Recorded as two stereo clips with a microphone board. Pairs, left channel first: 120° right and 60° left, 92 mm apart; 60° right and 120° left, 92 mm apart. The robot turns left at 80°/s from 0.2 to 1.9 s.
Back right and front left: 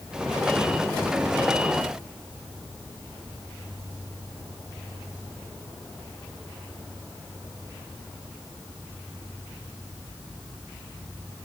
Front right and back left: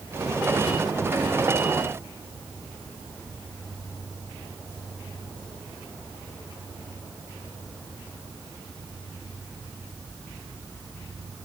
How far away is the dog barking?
I don't hear a dog barking.